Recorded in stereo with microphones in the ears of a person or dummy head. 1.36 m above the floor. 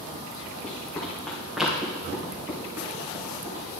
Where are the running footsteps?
10° left (ahead or behind), 3 m; by 3.7 s 20° right (ahead or behind), 3.5 m.